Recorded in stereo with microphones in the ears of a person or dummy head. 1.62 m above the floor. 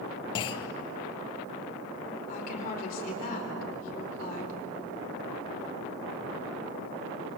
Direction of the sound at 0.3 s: 30° left (ahead or behind).